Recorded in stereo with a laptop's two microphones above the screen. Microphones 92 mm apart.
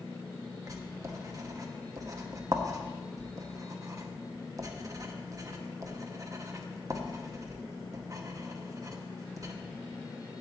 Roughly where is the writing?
Right.